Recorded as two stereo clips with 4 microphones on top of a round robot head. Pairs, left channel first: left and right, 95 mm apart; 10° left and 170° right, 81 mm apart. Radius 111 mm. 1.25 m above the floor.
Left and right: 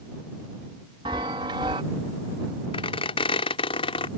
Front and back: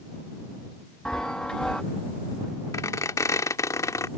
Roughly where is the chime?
Right.